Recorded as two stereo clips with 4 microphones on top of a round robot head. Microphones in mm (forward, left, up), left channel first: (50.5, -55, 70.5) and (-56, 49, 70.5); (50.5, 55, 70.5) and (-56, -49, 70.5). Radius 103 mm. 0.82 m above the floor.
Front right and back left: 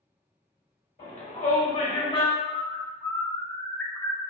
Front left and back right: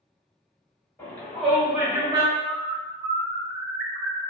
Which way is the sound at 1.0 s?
30° right.